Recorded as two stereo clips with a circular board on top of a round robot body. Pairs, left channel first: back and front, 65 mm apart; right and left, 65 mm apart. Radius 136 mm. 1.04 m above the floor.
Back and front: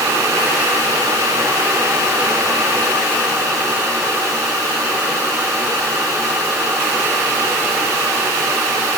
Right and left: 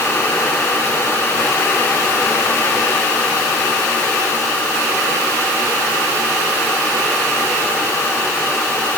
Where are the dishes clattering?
I don't hear dishes clattering.